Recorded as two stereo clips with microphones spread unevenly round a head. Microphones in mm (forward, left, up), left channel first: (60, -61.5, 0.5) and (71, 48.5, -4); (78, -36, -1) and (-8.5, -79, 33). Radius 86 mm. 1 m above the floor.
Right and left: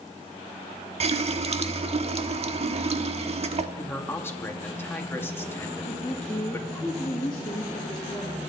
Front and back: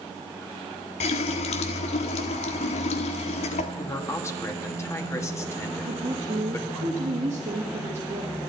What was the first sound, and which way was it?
A running tap, 55° left.